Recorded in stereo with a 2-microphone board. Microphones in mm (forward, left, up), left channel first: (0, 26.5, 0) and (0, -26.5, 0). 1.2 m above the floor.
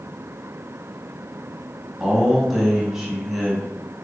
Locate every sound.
2.0 s a man speaking: 10° right (ahead or behind), 1.1 m